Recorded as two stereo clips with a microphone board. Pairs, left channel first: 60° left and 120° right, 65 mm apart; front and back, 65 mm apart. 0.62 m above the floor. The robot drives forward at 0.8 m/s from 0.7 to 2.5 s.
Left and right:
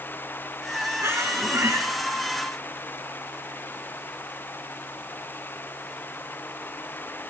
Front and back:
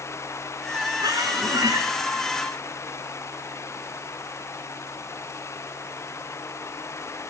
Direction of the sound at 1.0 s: 165° right.